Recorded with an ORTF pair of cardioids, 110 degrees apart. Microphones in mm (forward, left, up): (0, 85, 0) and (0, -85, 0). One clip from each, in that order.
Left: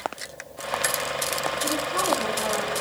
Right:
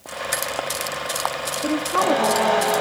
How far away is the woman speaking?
About 3 m.